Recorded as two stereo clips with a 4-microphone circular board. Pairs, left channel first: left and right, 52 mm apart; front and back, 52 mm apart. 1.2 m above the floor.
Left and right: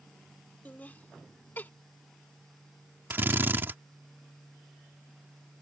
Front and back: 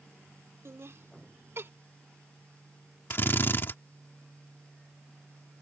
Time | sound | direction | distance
0.7 | laughter | 150° left | ?
3.1 | a drill | 40° right | ?